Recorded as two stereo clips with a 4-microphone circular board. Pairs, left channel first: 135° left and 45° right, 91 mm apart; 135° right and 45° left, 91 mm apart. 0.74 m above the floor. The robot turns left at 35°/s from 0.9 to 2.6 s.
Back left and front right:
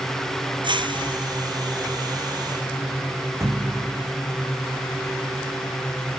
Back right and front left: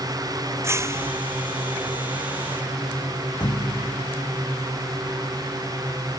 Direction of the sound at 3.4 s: 100° right.